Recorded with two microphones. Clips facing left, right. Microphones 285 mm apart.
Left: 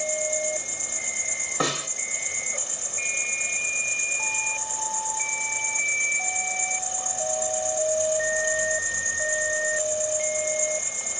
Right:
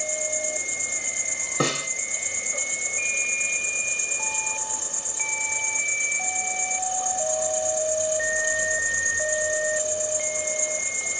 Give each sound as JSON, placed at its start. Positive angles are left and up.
{"t": 0.0, "sound": "an insect", "side_deg": -10, "distance_m": 0.7}
{"t": 1.6, "sound": "a snare drum", "side_deg": -30, "distance_m": 0.8}